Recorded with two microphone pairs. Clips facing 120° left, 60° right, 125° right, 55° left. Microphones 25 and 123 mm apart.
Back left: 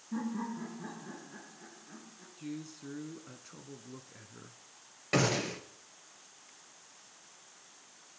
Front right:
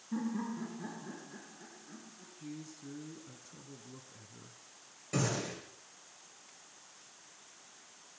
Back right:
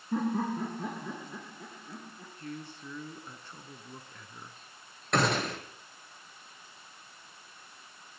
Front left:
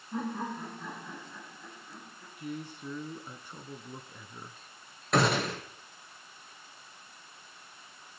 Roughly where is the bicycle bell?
No bicycle bell in this recording.